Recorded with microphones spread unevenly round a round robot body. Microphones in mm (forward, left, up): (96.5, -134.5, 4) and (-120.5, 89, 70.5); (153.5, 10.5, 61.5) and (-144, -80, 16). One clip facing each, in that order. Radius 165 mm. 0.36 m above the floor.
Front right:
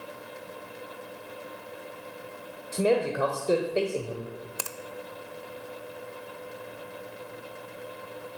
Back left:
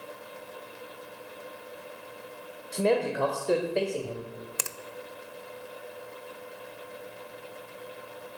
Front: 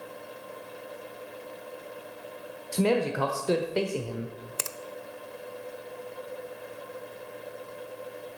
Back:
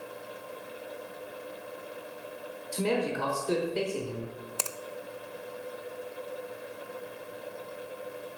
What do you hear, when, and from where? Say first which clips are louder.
2.7 s a man speaking: front right 1 dB, front 4 dB; 25° left, 1.3 m
4.6 s a finger snap: front right 1 dB, even; 75° left, 0.6 m